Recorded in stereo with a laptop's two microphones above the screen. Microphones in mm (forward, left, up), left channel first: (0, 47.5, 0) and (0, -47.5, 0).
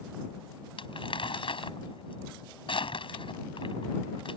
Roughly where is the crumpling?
Left.